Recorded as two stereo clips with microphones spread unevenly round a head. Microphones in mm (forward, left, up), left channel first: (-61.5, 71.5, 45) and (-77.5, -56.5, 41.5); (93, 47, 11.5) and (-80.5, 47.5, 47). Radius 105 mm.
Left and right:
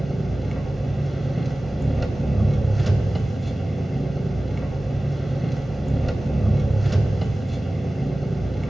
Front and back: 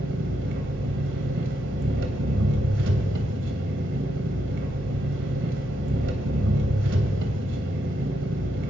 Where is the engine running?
170° left, 3 m.